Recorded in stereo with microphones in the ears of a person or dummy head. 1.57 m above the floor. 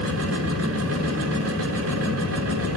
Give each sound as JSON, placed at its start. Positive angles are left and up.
{"t": 0.0, "sound": "a machine running", "side_deg": -80, "distance_m": 5.5}